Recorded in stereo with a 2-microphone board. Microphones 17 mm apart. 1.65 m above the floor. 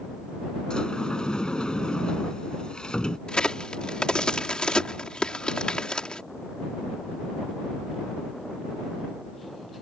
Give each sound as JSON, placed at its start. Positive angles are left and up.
{"t": 0.7, "sound": "a sliding door", "side_deg": 60}
{"t": 3.3, "sound": "a crack", "side_deg": 75}